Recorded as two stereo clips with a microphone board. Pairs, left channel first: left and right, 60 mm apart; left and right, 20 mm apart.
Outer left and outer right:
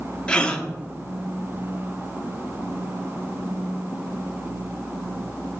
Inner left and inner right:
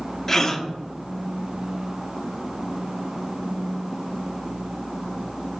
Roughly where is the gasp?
Centre.